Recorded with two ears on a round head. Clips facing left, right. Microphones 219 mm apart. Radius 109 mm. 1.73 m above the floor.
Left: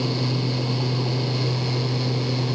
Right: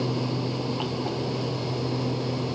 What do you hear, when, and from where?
Only background noise.